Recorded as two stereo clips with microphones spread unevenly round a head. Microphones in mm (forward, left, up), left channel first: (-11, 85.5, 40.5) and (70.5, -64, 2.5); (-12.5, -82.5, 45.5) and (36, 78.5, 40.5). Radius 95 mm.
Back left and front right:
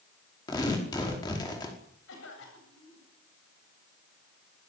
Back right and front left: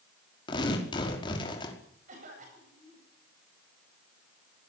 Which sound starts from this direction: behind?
Tearing paper, at 0.5 s.